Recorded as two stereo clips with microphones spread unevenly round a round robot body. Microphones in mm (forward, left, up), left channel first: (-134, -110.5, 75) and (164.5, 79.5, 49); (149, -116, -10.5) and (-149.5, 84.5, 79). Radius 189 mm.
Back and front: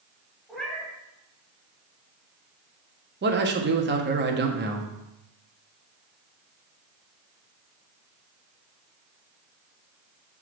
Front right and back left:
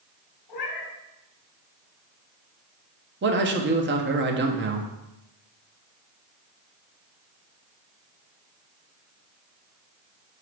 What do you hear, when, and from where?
0.5 s a cat meowing: 60° right, 3 m
3.2 s a man speaking: 80° left, 1.4 m